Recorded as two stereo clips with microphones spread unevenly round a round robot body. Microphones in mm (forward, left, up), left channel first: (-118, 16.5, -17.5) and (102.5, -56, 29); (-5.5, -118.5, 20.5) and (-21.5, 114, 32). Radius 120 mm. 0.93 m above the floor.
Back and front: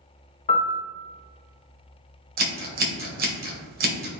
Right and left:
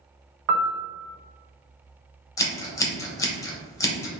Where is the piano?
100° left, 0.5 m.